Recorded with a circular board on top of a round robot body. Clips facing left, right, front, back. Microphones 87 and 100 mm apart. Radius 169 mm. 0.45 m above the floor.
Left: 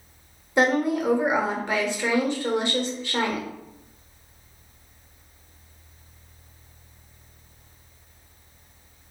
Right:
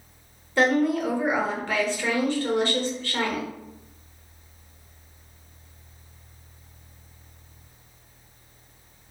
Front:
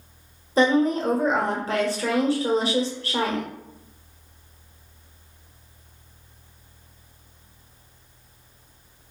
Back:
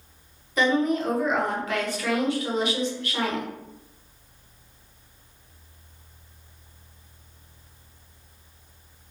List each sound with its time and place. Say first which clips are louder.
0.6 s a woman speaking: even, front 3 dB; 25° left, 1.1 m